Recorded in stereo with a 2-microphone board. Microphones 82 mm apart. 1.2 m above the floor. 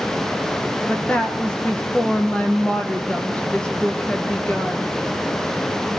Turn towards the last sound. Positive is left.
turn(degrees=15)  # may be behind; listen again after turning